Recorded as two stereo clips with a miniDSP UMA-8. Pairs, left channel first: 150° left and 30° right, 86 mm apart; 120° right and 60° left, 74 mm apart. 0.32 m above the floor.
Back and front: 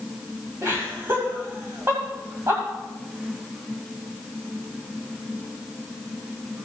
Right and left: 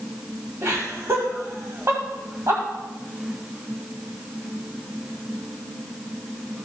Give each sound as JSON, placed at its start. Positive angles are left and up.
{"t": 0.6, "sound": "laughter", "azimuth_deg": 20, "distance_m": 1.6}